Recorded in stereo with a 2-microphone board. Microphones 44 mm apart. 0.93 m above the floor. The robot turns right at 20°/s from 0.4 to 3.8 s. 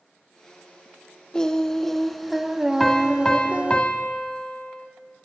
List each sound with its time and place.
1.3 s singing: 165° left, 0.8 m; by 3.8 s 145° right, 0.8 m
2.8 s a piano: 5° left (ahead or behind), 1.5 m; by 4.9 s 25° left (ahead or behind), 1.5 m